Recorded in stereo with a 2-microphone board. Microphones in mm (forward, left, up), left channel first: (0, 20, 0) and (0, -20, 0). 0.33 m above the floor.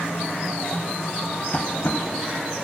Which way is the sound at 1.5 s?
40° left (ahead or behind).